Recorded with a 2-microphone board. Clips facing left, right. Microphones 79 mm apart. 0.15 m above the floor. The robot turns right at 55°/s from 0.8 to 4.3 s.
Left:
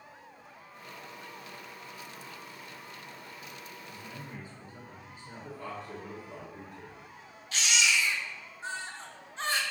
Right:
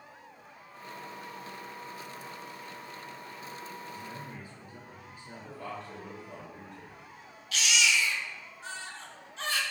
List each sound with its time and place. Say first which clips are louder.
3.9 s a man speaking: right 2 dB; 20° right (ahead or behind), 1.9 m; by 6.4 s 5° right (ahead or behind), 1.9 m
5.4 s a man speaking: even; 5° left (ahead or behind), 2.0 m
7.5 s a baby crying: right 1 dB; 35° left (ahead or behind), 0.5 m